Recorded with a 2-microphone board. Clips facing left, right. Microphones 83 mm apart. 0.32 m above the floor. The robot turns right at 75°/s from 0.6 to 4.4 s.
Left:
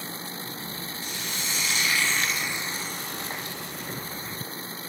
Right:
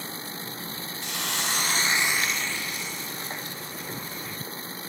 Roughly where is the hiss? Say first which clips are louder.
Right 6 dB; right.